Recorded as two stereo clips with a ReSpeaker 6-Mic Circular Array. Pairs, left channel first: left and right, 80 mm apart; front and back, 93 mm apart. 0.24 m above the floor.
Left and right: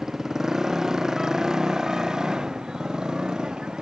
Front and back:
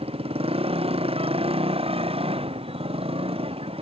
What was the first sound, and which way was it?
A motorcycle, 175° right.